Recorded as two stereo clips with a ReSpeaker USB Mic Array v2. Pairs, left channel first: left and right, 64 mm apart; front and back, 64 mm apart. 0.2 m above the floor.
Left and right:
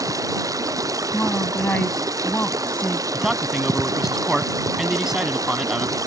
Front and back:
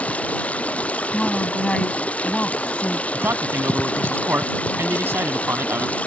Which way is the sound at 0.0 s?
65° right.